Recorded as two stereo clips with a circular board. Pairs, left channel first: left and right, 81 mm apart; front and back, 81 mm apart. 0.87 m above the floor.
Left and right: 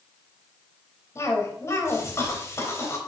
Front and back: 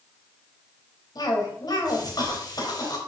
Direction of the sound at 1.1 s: 35° left.